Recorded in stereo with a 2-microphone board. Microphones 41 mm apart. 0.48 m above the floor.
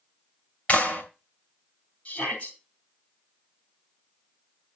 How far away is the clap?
About 2.5 m.